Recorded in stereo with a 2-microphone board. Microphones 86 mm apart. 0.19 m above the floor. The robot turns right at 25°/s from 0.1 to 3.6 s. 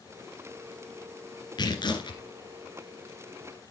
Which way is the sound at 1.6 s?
55° left (ahead or behind).